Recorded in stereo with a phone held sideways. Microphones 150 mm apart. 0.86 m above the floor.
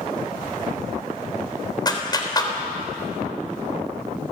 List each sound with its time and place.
1.9 s a clap: 25° left (ahead or behind), 3.5 m